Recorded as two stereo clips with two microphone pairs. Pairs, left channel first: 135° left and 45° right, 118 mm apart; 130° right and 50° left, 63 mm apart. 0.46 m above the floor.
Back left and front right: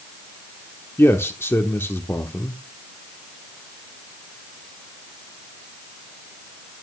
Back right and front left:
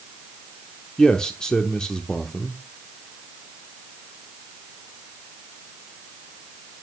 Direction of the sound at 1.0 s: 170° left.